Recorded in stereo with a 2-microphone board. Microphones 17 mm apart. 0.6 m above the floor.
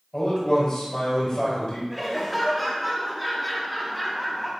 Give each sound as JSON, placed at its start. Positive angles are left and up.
{"t": 0.1, "sound": "a man speaking", "side_deg": 60, "distance_m": 3.0}
{"t": 1.9, "sound": "laughter", "side_deg": -5, "distance_m": 1.4}